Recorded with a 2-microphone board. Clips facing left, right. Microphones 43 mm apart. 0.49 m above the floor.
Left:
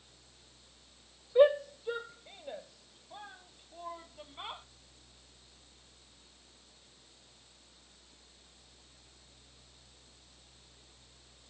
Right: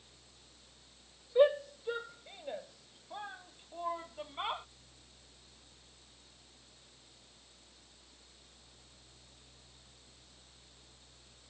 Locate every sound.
1.4 s a shout: 15° left (ahead or behind); by 4.7 s 30° right (ahead or behind)